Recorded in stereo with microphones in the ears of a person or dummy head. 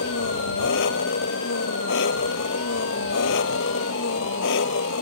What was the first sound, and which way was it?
An engine running, 60° left (ahead or behind).